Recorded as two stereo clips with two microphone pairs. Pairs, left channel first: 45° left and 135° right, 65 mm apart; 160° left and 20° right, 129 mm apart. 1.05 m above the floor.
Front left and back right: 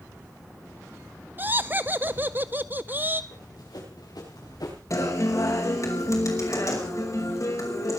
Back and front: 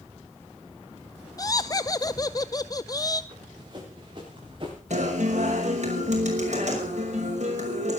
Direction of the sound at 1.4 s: 165° right.